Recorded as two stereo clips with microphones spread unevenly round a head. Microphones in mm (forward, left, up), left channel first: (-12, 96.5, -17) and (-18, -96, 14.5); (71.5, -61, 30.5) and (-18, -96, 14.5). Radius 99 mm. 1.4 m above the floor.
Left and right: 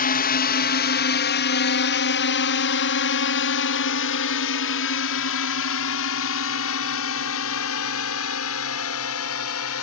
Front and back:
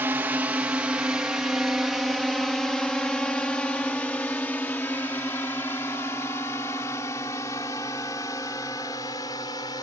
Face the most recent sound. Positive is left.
turn(degrees=90)